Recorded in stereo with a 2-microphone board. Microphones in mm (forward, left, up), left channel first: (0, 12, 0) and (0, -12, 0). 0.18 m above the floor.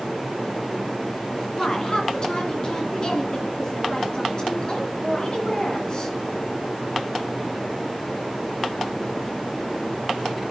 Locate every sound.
1.6 s a woman speaking: 35° left (ahead or behind), 1.8 m